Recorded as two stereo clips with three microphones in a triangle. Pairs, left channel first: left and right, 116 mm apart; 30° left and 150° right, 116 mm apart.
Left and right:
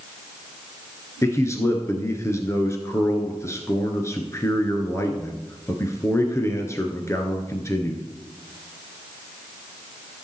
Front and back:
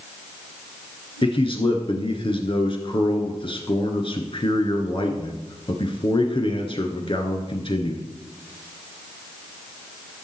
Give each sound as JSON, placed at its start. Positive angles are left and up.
{"t": 1.2, "sound": "a man speaking", "azimuth_deg": 35, "distance_m": 1.6}